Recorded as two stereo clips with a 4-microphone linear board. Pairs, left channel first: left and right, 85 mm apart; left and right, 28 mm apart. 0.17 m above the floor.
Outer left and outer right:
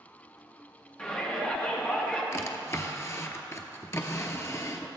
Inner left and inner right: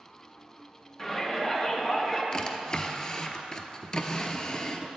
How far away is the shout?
About 1.8 m.